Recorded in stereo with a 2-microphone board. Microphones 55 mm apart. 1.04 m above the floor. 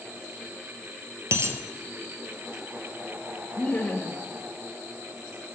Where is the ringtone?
No ringtone in this recording.